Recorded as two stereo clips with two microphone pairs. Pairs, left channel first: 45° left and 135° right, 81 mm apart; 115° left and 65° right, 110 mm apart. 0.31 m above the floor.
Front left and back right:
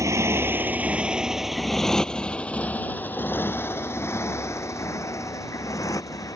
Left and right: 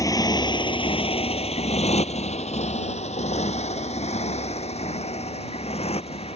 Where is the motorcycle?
175° left; by 6.3 s 95° left.